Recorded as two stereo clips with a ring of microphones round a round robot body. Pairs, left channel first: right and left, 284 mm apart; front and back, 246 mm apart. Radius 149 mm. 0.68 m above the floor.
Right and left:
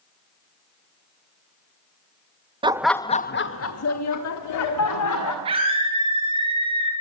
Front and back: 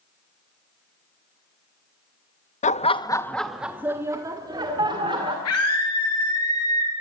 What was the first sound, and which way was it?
Laughter, 30° left.